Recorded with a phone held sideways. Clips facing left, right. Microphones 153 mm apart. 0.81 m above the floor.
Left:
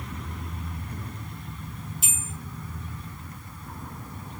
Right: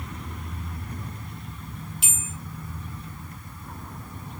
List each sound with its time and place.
2.0 s a bell: 70° right (ahead or behind), 5 m